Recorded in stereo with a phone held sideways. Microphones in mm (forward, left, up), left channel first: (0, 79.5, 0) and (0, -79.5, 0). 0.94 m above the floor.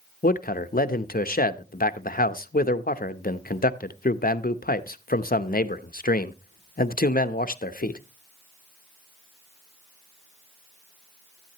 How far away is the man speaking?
About 0.7 m.